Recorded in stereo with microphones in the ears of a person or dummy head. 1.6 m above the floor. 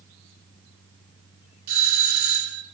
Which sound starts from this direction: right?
A doorbell, at 1.7 s.